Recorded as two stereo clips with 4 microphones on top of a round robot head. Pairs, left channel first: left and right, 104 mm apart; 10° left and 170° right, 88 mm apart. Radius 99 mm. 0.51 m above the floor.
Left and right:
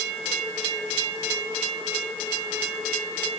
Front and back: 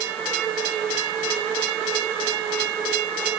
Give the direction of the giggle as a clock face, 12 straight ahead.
I don't hear a giggle.